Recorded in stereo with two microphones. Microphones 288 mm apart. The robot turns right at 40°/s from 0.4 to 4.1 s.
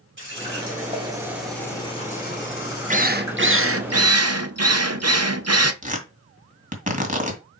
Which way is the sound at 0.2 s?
45° right.